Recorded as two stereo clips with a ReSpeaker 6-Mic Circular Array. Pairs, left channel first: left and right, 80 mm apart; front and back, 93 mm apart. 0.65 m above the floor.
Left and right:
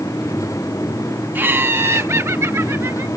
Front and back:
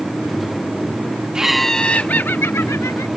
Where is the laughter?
110° right; by 3.1 s 45° right.